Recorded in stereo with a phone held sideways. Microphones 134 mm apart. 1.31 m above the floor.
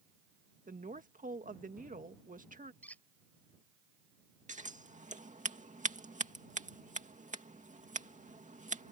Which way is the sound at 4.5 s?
60° right (ahead or behind).